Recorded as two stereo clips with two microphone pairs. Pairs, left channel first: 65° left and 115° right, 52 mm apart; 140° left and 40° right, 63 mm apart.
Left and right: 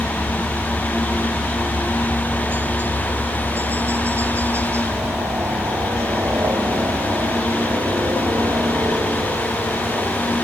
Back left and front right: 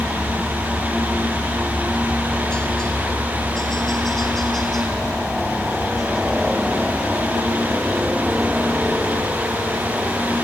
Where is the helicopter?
175° left; by 10.4 s 120° right.